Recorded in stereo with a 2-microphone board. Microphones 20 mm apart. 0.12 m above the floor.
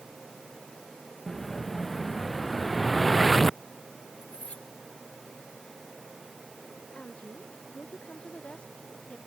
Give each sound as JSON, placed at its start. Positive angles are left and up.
{"t": 1.3, "sound": "an explosion", "side_deg": 15}
{"t": 4.2, "sound": "cutlery clinking", "side_deg": 70}
{"t": 7.0, "sound": "a woman speaking", "side_deg": 75}